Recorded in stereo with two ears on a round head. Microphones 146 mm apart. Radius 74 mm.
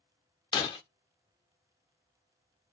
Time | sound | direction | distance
0.5 | breaking glass | 25° left (ahead or behind) | 0.6 m